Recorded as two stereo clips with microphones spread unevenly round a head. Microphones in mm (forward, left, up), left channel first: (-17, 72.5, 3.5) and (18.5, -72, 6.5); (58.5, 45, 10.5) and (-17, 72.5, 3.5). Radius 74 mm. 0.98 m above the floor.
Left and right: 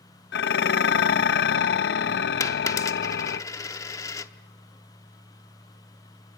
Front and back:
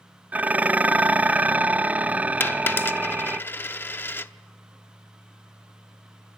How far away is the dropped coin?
About 0.7 m.